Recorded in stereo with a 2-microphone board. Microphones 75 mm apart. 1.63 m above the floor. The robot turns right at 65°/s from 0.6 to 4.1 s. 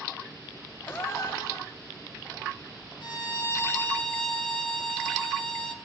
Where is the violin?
100° left, 3 m; by 5.7 s 170° left, 3 m.